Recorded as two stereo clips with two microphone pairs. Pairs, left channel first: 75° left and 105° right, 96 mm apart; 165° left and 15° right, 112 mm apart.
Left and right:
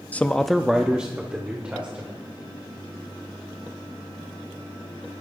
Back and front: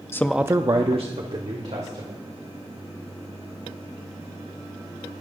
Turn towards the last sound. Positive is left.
turn(degrees=-30)